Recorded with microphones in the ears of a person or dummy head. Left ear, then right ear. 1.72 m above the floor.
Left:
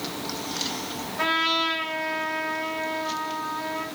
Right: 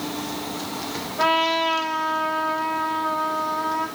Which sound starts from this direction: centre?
A trumpet, at 1.2 s.